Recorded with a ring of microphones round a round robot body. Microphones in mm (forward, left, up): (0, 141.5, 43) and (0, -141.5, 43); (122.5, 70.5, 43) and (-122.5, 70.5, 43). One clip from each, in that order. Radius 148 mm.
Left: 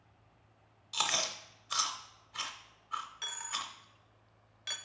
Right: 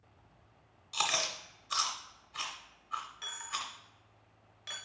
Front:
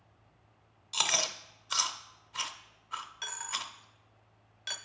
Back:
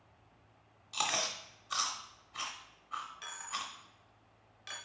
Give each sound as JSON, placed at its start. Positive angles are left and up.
{"t": 0.9, "sound": "chewing", "azimuth_deg": 10, "distance_m": 0.5}
{"t": 3.2, "sound": "a dropped coin", "azimuth_deg": 35, "distance_m": 0.5}